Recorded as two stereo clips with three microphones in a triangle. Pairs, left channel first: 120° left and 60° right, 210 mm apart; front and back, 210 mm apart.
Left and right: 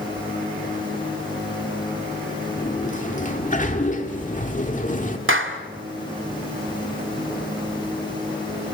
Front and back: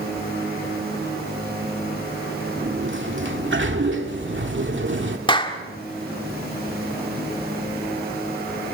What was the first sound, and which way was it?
A sliding door, 170° left.